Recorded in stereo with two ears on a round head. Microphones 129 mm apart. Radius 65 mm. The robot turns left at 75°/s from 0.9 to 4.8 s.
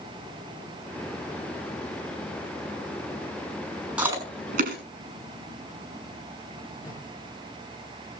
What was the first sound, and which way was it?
Chewing, 5° right (ahead or behind).